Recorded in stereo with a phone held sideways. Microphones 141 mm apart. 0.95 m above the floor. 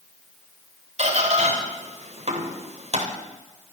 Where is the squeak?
50° right (ahead or behind), 3 m.